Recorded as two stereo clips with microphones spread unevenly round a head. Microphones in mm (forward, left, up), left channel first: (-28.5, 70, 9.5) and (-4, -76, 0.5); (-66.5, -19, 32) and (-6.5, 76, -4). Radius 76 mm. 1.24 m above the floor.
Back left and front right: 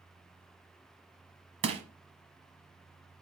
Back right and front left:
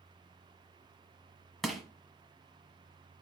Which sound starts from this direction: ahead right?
Crushing, at 1.6 s.